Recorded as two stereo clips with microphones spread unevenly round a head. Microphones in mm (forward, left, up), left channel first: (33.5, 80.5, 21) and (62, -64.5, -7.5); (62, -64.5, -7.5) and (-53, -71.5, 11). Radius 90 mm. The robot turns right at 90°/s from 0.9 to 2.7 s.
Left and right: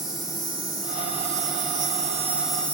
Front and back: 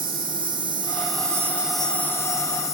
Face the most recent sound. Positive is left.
turn(degrees=10)